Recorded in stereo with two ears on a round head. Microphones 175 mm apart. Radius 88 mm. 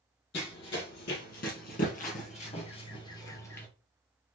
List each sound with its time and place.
0.3 s running footsteps: 65° left (ahead or behind), 2.5 m; by 3.7 s 10° left (ahead or behind), 1.4 m